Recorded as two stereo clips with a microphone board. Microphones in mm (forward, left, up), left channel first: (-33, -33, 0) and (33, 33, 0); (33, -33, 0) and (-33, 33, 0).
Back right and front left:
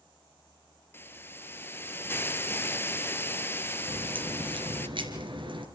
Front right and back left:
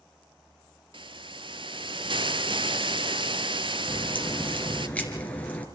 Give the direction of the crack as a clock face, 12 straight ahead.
11 o'clock.